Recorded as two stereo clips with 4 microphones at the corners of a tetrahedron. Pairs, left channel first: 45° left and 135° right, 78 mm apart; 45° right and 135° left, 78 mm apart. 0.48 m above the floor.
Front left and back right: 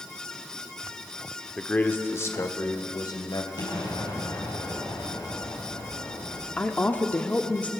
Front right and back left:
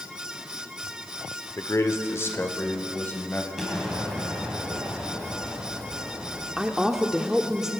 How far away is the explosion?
About 3.5 m.